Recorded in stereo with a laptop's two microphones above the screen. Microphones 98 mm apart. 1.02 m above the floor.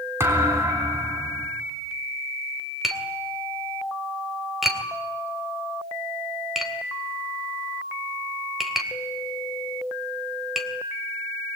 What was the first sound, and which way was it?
A thud, 30° right (ahead or behind).